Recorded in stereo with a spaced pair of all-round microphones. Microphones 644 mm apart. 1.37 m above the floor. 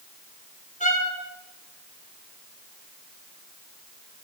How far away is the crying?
No crying in this recording.